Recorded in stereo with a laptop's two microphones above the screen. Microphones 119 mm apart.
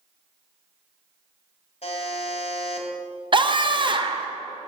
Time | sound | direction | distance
1.8 | a buzzer | 60° left (ahead or behind) | 1.7 m
3.3 | a scream | 40° right (ahead or behind) | 0.6 m